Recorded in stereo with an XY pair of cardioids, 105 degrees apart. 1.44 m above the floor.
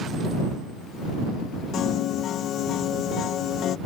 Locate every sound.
1.7 s a piano: 70° left